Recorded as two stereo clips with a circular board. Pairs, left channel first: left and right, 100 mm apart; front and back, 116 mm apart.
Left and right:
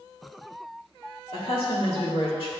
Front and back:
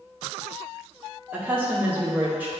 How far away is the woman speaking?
About 1.5 m.